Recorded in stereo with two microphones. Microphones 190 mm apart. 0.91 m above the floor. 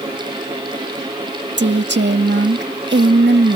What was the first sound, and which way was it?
A woman speaking, 70° right (ahead or behind).